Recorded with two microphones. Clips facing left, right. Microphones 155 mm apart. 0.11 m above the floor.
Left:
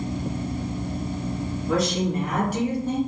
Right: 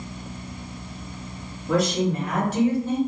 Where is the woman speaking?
Centre (ahead or behind), 1.7 m; by 3.0 s 20° left (ahead or behind), 1.6 m.